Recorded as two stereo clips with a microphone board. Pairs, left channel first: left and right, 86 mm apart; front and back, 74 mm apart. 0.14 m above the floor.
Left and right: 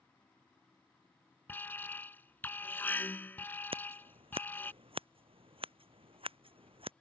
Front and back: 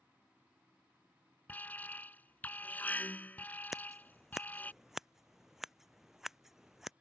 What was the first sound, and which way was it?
An alarm, 45° left.